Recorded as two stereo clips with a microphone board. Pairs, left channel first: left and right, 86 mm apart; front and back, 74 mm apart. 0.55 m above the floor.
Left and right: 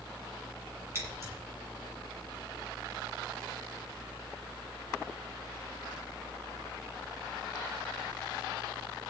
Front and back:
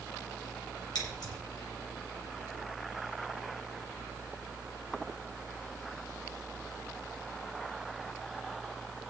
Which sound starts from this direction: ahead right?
Scissors, at 0.9 s.